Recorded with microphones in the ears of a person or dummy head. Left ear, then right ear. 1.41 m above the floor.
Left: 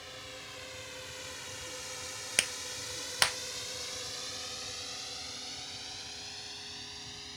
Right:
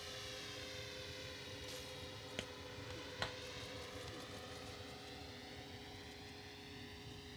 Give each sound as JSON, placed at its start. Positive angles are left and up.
{"t": 0.0, "sound": "a drone", "side_deg": 25}
{"t": 2.4, "sound": "a clap", "side_deg": 45}